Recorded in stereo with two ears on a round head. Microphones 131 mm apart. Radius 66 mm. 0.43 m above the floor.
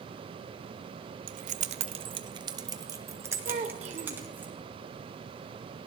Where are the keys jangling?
55° right (ahead or behind), 0.8 m; by 4.5 s 15° right (ahead or behind), 3 m.